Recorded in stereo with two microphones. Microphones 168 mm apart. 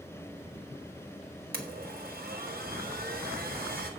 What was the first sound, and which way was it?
A blender, 60° right (ahead or behind).